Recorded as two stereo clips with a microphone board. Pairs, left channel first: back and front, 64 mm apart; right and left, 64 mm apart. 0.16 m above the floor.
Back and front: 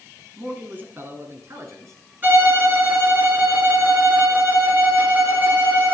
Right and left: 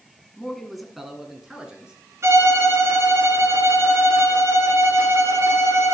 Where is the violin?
55° left, 2.5 m.